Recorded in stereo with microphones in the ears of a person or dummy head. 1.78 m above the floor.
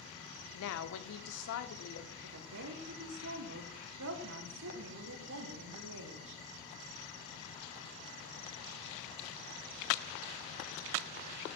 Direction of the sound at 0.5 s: 75° left (ahead or behind).